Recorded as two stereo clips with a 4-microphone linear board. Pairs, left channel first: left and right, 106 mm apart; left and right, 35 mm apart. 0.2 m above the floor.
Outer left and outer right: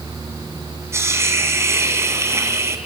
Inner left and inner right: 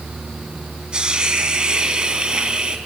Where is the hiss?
25° right (ahead or behind), 2 m.